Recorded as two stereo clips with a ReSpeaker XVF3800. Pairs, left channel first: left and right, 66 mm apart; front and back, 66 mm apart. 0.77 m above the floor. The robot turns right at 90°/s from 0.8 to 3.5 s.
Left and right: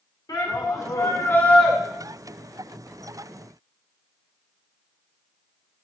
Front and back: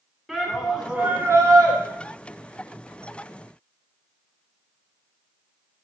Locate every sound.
0.3 s a shout: 95° left, 2.5 m; by 1.8 s 175° right, 2.5 m